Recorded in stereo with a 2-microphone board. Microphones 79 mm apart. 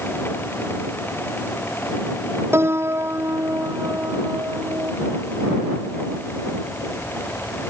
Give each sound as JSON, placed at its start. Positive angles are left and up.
{"t": 2.5, "sound": "a piano", "side_deg": -35}